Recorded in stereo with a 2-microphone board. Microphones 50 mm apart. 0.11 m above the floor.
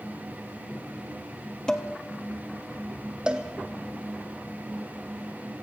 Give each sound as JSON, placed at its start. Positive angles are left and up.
{"t": 1.7, "sound": "dishes clattering", "side_deg": 15, "distance_m": 2.0}
{"t": 3.3, "sound": "a cowbell", "side_deg": -20, "distance_m": 2.5}